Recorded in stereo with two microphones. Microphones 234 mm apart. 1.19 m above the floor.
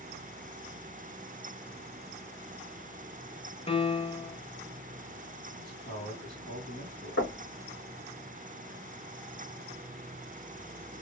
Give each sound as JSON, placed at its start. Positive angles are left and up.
{"t": 3.7, "sound": "a piano", "side_deg": 25, "distance_m": 0.5}
{"t": 5.6, "sound": "a man speaking", "side_deg": 45, "distance_m": 1.9}
{"t": 7.2, "sound": "knocking", "side_deg": 65, "distance_m": 1.5}